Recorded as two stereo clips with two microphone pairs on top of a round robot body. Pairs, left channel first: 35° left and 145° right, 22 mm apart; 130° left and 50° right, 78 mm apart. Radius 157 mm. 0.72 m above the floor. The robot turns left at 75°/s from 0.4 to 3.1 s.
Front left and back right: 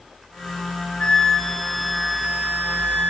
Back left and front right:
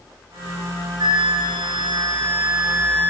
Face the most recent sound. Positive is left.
turn(degrees=-175)